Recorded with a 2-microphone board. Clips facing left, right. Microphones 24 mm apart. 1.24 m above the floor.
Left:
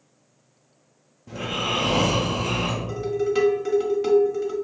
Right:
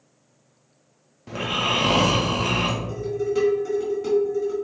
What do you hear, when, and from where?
1.3 s snoring: 80° right, 0.9 m
2.9 s dishes clattering: 40° left (ahead or behind), 1.4 m